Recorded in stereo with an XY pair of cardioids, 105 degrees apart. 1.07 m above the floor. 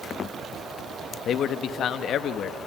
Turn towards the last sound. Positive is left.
turn(degrees=65)